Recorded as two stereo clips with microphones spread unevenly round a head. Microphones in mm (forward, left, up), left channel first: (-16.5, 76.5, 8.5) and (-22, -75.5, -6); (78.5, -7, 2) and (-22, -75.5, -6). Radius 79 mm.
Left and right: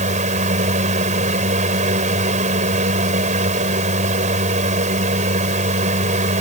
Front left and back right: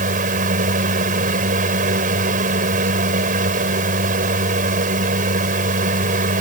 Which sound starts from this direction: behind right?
A fan, at 0.0 s.